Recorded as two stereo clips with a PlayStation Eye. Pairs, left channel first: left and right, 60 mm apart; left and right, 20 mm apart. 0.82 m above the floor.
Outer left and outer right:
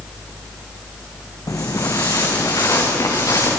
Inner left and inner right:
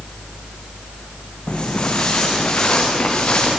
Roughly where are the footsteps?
Left.